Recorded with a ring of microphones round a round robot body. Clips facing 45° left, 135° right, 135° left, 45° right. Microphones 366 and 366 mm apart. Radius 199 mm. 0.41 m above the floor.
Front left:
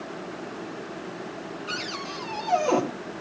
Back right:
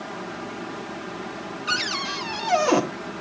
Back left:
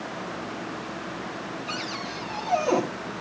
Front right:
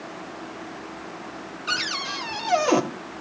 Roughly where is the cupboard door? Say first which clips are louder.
Back right 2 dB, back left 2 dB; right.